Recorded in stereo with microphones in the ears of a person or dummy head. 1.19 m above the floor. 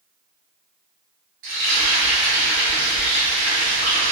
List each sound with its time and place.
1.4 s frying: 65° right (ahead or behind), 1.4 m